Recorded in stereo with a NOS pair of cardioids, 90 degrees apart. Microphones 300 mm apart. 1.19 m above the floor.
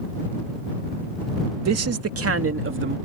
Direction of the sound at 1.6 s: 65° right.